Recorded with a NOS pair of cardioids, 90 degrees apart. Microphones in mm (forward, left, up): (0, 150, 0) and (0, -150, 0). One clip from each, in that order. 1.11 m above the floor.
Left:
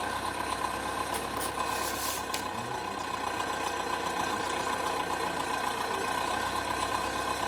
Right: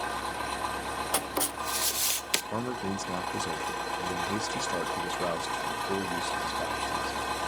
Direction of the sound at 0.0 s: 20° left.